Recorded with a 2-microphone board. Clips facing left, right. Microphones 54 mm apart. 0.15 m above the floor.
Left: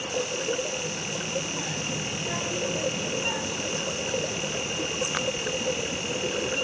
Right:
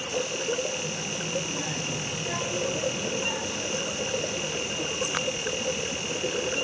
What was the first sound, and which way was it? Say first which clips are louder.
A child speaking: even; 15° right (ahead or behind).